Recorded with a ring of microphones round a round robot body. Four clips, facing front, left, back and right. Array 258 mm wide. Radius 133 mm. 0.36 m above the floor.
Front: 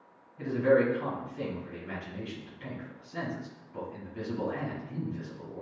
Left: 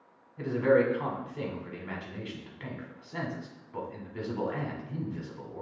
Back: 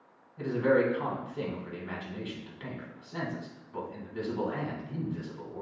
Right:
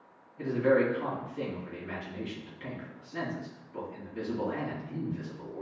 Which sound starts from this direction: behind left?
A man speaking, at 0.4 s.